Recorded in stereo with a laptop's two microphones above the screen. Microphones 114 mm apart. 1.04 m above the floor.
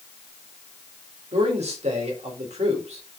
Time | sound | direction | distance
1.3 | a man speaking | 75° right (ahead or behind) | 4 m